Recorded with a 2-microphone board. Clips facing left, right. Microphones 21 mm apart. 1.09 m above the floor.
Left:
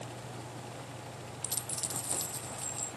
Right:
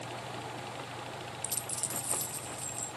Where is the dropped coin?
30° left (ahead or behind).